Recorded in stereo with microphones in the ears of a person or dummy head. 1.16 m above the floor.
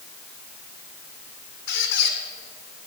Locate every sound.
1.7 s a squeak: 50° left (ahead or behind), 1.5 m